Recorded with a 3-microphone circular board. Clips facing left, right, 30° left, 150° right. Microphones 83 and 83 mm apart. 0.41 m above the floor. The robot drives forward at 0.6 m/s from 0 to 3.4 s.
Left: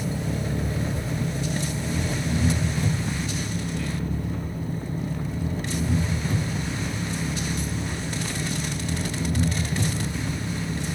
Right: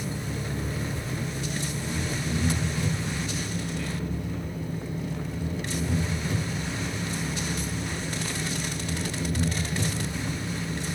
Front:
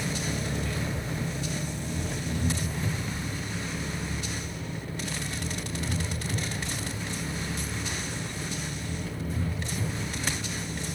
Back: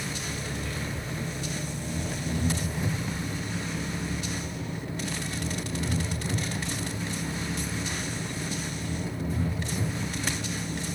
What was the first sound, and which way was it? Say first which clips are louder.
An engine running: left 4 dB, front 3 dB; 85° left.